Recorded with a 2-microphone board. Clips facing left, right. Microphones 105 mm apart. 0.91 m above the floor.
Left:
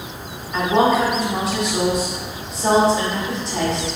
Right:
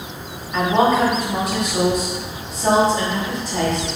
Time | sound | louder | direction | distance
0.5 | a woman speaking | even | centre (ahead or behind) | 1.7 m